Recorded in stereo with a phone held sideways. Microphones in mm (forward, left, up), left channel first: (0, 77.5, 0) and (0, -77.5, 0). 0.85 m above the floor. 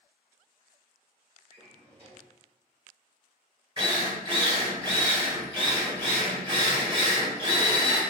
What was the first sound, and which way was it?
A drawer, 40° right (ahead or behind).